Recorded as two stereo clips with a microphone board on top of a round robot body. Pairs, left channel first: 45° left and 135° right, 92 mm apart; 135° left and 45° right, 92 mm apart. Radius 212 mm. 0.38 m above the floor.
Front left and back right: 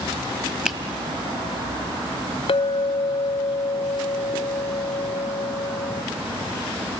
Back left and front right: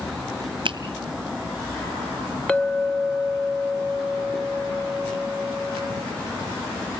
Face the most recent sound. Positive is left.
turn(degrees=55)